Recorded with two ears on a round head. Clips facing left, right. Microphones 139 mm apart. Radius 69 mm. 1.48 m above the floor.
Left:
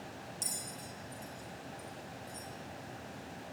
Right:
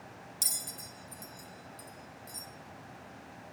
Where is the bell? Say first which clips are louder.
Left 2 dB; 75° right (ahead or behind), 2.5 m.